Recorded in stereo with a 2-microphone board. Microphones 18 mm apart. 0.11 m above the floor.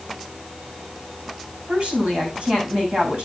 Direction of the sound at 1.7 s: 65° right (ahead or behind).